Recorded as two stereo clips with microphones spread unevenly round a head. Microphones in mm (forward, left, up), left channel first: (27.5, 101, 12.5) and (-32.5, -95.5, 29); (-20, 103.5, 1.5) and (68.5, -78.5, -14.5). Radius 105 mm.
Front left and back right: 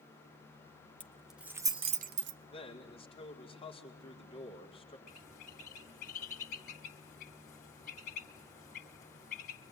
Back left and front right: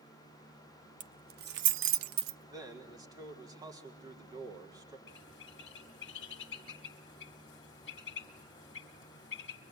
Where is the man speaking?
10° left, 4.5 m.